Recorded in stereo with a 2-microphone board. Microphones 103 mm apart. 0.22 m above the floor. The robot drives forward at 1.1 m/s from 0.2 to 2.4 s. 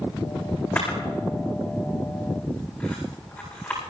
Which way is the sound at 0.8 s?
20° left (ahead or behind).